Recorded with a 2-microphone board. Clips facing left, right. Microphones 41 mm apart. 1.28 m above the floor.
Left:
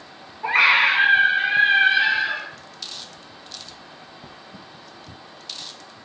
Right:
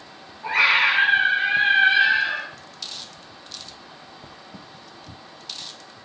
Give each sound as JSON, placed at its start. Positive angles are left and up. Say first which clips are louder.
{"t": 0.4, "sound": "a scream", "louder": "left 2 dB", "side_deg": 30, "distance_m": 1.5}